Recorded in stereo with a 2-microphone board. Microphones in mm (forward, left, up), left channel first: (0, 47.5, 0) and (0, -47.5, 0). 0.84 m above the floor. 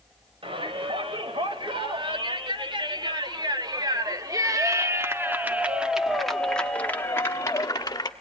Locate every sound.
0.4 s a shout: 65° right (ahead or behind), 3.5 m; by 8.1 s 40° left (ahead or behind), 1.8 m